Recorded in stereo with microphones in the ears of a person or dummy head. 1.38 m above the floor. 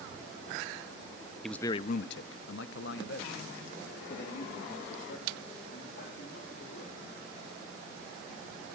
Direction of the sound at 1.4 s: 5° left (ahead or behind).